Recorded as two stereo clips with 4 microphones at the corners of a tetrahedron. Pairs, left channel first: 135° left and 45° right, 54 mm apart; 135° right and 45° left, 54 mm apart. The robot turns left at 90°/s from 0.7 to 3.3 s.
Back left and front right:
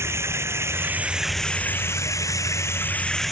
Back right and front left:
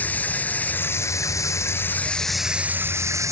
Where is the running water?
75° right; by 3.3 s 50° left.